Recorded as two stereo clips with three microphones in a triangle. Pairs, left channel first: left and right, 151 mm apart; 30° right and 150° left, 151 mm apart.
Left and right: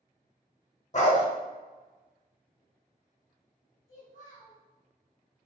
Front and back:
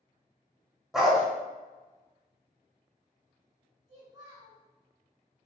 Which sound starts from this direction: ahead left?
A dog barking, at 0.9 s.